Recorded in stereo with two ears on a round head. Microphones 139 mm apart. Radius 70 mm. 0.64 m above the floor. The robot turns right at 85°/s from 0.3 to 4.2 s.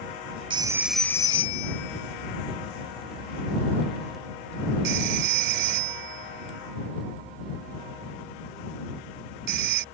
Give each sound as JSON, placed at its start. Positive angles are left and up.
{"t": 0.5, "sound": "a phone ringing", "side_deg": -35}